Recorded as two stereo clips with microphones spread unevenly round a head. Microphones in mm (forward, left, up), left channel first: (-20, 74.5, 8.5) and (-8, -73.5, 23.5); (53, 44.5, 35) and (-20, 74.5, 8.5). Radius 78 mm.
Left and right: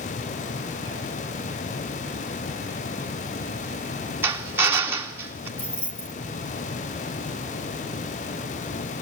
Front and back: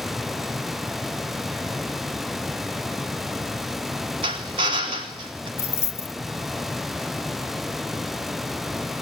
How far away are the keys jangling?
About 1.5 m.